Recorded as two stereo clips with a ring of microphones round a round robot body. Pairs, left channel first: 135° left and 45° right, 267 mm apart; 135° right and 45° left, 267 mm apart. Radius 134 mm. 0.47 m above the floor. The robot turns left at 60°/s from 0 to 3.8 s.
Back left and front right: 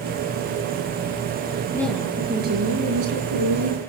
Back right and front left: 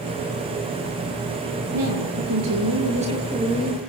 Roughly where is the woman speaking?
Ahead left.